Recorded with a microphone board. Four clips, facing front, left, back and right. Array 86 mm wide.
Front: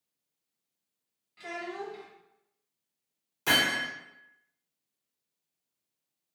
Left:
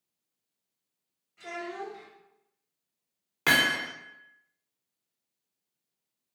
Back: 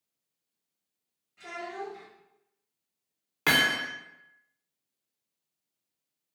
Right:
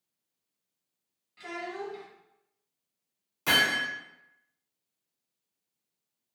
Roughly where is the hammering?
Behind left.